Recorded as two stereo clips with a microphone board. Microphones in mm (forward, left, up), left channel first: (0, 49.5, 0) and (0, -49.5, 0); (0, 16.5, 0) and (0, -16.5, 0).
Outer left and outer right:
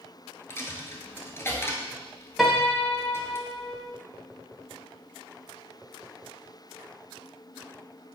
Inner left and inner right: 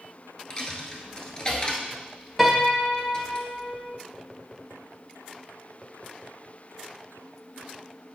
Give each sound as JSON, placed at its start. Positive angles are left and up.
{"t": 0.5, "sound": "a dropped coin", "side_deg": 30, "distance_m": 0.9}
{"t": 2.4, "sound": "a piano", "side_deg": -5, "distance_m": 1.0}